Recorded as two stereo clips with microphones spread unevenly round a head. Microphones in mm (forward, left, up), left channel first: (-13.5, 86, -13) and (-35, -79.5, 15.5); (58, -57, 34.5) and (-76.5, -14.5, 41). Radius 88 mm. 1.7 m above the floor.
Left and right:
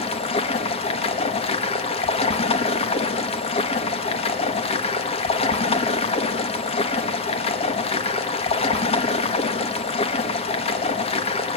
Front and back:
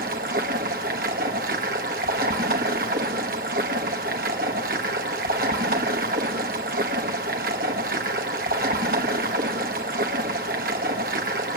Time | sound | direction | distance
0.0 | running water | 140° left | 1.4 m